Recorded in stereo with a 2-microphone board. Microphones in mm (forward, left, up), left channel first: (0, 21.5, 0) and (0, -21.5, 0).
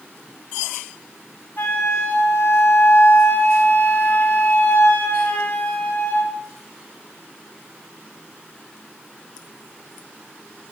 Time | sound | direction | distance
1.6 | a flute | 55° left (ahead or behind) | 2 m